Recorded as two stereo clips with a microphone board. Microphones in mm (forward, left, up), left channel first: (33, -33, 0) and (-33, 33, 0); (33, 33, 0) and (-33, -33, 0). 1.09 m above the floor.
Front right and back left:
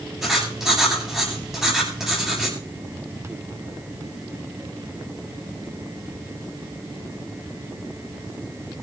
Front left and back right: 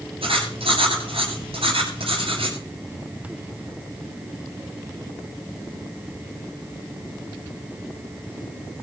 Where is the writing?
140° right, 8.5 m.